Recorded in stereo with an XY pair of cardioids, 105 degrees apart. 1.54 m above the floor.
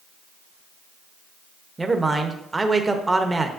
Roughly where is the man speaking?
Ahead.